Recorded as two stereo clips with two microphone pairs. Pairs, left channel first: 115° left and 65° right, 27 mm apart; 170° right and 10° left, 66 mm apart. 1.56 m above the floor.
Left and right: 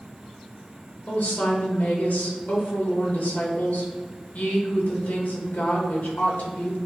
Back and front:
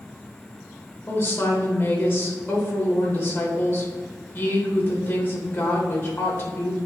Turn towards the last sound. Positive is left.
turn(degrees=135)